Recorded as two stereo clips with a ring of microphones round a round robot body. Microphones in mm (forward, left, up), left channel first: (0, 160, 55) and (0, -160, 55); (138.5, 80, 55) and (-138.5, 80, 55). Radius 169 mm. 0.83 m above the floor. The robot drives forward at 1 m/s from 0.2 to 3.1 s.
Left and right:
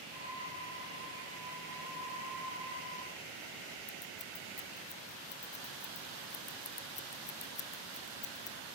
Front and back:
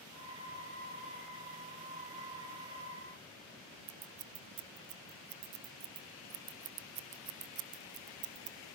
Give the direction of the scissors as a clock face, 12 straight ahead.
7 o'clock.